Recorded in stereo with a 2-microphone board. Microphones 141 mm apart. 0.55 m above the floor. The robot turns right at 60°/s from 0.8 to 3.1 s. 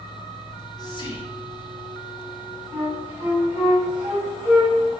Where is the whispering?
45° left, 0.7 m; by 1.9 s 110° left, 0.7 m.